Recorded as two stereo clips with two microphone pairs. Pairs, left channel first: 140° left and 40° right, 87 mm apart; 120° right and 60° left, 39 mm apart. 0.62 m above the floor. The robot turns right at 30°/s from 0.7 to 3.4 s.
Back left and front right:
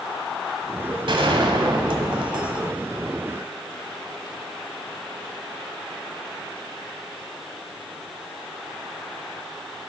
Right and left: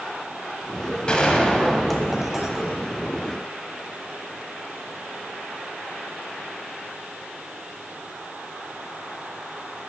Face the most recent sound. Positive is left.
turn(degrees=15)